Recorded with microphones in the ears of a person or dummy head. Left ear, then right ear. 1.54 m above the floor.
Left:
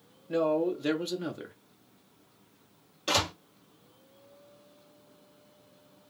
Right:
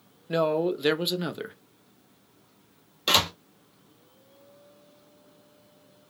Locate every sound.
0.3 s a man speaking: 30° right (ahead or behind), 0.7 m
3.1 s a door slam: 30° right (ahead or behind), 1.2 m